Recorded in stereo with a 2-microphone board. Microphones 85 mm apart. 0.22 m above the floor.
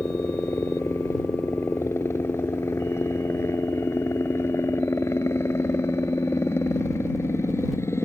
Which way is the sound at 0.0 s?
30° left (ahead or behind).